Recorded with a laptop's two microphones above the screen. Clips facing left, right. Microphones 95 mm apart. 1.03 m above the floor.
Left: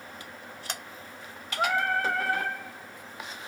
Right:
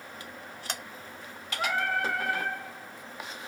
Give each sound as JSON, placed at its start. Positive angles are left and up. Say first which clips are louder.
{"t": 1.6, "sound": "singing", "louder": "left 3 dB", "side_deg": 40, "distance_m": 1.0}